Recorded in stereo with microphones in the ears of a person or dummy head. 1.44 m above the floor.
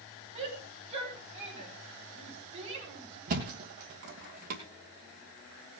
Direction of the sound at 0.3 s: 35° right (ahead or behind).